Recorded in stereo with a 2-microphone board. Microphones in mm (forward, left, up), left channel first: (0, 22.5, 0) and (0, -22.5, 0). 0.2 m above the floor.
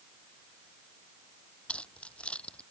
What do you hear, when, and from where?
1.7 s keys jangling: 25° left (ahead or behind)